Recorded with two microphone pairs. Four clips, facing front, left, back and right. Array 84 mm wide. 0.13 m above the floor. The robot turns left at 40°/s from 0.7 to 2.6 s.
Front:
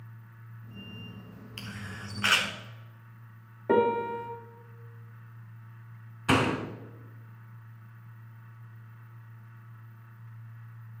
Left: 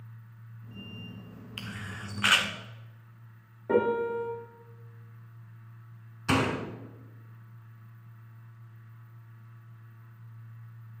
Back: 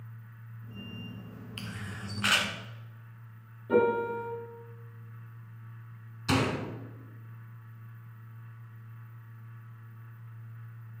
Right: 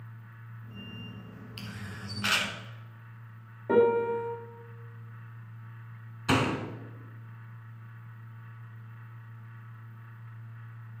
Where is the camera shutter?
105° left, 1.2 m; by 2.5 s 70° left, 1.2 m.